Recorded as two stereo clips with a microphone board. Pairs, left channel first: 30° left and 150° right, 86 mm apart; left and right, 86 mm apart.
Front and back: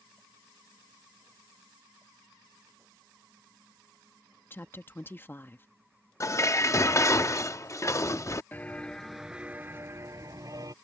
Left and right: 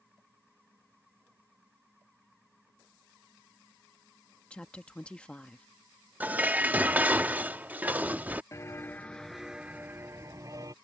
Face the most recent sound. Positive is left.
turn(degrees=-125)